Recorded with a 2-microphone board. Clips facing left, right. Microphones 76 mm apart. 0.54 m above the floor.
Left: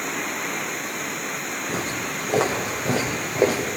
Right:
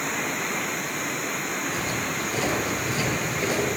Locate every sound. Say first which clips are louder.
1.7 s footsteps: even; 75° left (ahead or behind), 7 m; by 3.7 s 70° left (ahead or behind), 6 m